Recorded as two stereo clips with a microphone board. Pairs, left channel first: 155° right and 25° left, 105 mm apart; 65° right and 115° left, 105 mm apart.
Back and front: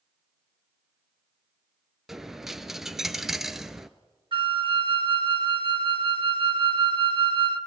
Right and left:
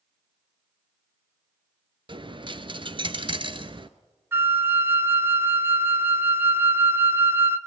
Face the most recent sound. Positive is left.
turn(degrees=50)